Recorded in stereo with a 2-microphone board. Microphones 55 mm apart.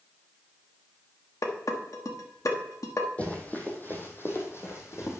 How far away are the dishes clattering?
About 1.2 m.